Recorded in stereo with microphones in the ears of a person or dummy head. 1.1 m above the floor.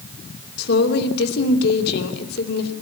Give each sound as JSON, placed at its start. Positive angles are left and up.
{"t": 0.6, "sound": "a woman speaking", "side_deg": 70, "distance_m": 3.0}